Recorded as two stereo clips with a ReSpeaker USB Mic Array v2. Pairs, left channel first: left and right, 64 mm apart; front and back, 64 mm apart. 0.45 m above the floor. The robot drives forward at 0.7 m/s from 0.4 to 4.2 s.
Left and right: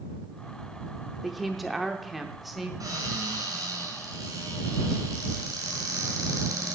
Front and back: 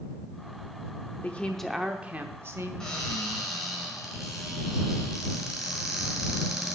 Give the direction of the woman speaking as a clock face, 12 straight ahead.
12 o'clock.